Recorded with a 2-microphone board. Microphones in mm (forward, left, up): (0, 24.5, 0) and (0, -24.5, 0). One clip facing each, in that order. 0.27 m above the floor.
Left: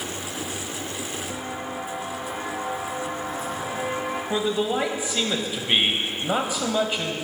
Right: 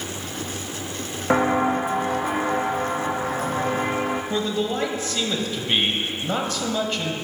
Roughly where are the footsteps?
Right.